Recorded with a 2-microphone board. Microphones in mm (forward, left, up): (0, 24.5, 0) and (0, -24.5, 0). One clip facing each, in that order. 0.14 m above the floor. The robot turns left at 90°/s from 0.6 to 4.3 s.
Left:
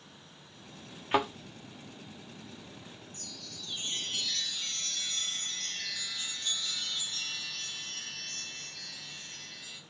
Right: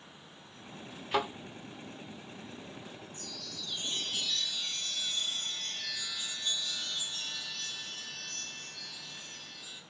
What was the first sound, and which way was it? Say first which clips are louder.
A thud: left 3 dB; 25° left (ahead or behind).